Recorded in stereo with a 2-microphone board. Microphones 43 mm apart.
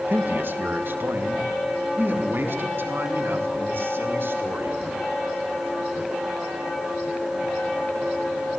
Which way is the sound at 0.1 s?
50° right (ahead or behind).